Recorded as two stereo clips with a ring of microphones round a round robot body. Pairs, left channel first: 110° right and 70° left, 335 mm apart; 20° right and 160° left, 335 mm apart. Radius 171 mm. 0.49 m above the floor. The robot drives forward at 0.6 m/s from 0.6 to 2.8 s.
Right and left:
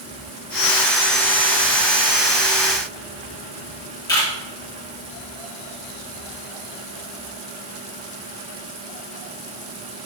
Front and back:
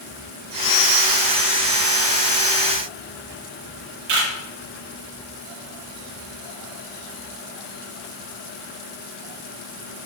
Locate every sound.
4.1 s a camera shutter: 170° left, 2.5 m